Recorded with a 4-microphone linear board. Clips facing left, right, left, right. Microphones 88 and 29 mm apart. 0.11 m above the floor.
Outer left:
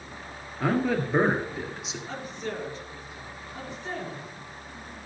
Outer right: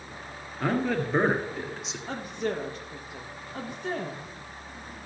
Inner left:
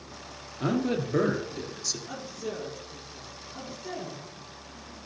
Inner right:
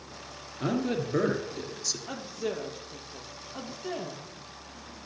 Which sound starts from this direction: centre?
A man speaking, at 0.6 s.